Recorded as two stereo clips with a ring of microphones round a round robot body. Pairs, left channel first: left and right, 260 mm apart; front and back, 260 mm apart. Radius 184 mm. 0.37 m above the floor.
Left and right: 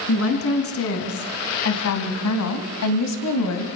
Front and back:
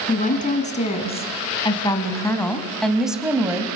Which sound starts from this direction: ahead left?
A woman speaking, at 0.1 s.